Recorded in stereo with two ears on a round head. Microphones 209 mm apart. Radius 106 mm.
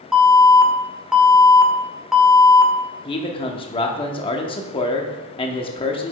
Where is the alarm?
Centre (ahead or behind), 1.3 m.